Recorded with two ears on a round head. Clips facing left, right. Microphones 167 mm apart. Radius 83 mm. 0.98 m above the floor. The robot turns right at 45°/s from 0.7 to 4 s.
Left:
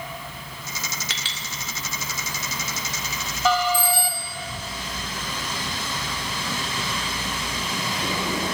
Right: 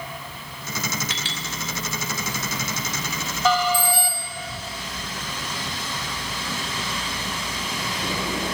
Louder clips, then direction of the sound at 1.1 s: Right 4 dB; 60° left (ahead or behind).